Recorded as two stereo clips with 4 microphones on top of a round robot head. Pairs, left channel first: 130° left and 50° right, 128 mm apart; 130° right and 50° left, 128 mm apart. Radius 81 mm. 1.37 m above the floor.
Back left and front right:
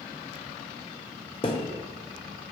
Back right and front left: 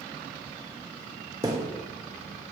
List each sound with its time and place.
1.4 s a thud: 100° left, 0.7 m